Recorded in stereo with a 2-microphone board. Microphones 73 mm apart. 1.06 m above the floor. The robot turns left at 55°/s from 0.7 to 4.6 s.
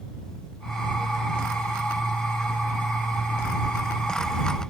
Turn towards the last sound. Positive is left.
No sound to turn to.